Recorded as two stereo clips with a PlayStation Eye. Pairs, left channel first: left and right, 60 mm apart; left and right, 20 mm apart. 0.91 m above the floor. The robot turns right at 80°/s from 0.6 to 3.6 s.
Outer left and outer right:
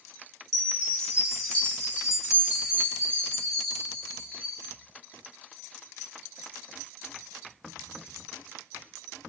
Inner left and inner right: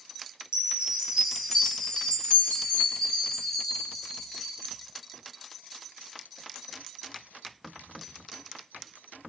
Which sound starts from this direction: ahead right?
A chime, at 0.5 s.